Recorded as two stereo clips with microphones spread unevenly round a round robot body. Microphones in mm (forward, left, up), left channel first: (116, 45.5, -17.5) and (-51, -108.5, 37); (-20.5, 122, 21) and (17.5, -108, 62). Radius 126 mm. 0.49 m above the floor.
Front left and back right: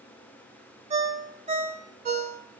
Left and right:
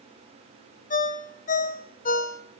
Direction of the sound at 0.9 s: 155° left.